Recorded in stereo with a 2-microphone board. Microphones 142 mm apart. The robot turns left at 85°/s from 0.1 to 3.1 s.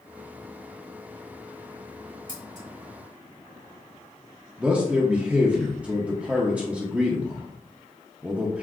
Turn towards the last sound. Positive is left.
turn(degrees=-10)  # may be behind; listen again after turning